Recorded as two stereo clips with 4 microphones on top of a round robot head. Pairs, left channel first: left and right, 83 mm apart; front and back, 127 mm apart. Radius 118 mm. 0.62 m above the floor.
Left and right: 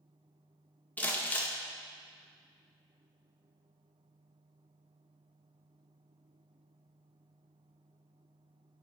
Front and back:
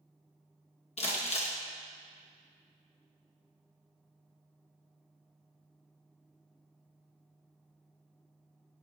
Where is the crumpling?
25° left, 1.5 m.